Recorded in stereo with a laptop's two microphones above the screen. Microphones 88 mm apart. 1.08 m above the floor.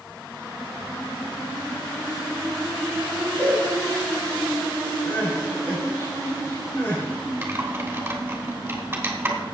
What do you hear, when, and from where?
3.4 s a cowbell: 25° left (ahead or behind), 5.5 m
5.0 s crying: 25° left (ahead or behind), 6 m
7.4 s typing on a keyboard: 25° right (ahead or behind), 3 m